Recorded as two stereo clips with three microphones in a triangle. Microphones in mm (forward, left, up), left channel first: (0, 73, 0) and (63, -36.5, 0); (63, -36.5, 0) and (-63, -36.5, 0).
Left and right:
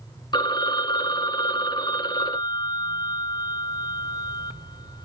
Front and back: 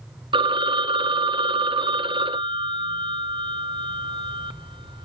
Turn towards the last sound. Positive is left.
turn(degrees=160)